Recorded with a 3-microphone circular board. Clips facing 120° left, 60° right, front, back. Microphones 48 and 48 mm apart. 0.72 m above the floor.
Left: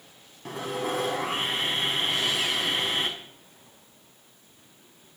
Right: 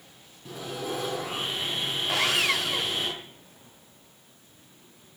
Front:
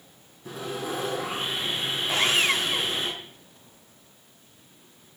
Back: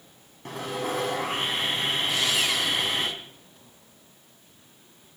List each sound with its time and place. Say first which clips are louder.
0.5 s sawing: left 4 dB, back 2 dB; 150° left, 5.5 m
2.1 s sawing: right 2 dB, front 6 dB; 50° right, 0.9 m